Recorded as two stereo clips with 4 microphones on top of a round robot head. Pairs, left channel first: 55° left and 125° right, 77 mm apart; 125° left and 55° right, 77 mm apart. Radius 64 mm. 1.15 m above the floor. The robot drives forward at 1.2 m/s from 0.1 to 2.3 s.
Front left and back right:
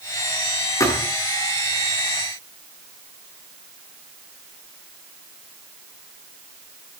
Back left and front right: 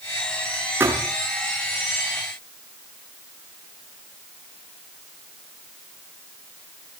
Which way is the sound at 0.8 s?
5° left.